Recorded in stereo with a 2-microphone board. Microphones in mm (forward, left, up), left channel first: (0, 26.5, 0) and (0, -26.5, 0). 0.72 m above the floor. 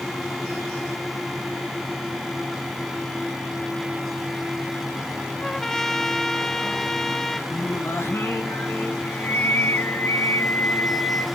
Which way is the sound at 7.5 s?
50° left (ahead or behind).